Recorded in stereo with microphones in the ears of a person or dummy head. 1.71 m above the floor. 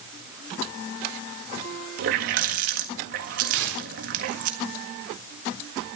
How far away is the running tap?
About 1.6 m.